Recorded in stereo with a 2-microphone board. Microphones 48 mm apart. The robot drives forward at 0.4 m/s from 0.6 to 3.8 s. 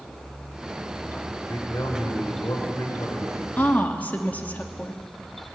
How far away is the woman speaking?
About 1.7 m.